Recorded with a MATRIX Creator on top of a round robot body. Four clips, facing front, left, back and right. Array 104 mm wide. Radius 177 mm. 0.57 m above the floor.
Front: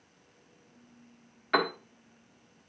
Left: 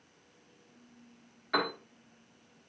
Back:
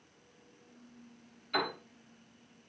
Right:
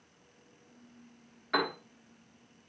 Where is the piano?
5° right, 1.5 m.